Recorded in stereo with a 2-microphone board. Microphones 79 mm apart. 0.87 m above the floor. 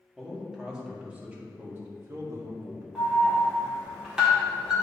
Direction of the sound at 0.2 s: 5° right (ahead or behind).